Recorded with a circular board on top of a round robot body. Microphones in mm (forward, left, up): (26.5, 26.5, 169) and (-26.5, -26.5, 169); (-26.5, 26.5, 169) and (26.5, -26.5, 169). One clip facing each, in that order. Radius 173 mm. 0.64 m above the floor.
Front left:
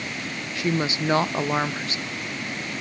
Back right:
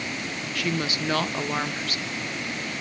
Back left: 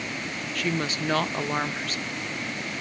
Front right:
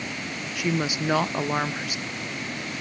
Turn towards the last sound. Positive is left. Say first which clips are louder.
# front left 4 dB, front right 2 dB
turn(degrees=20)